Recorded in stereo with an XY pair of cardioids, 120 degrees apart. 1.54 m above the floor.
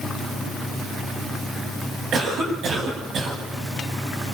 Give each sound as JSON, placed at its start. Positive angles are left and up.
{"t": 2.1, "sound": "a cough", "azimuth_deg": -50, "distance_m": 9.5}